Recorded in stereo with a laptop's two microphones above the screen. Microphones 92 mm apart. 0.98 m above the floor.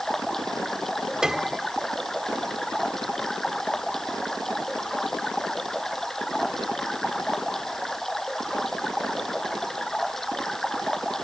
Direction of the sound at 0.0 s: 5° left (ahead or behind).